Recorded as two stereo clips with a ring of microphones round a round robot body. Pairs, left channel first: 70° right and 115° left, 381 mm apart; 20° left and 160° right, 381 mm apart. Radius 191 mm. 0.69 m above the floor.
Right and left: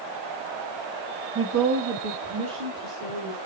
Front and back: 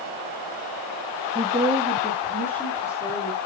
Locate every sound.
1.4 s a woman speaking: 135° left, 1.0 m; by 3.4 s 105° left, 3 m